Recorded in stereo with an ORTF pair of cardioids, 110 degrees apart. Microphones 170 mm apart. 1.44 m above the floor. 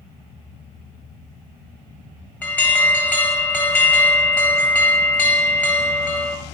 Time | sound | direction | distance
2.4 | an alarm | 10° left | 0.6 m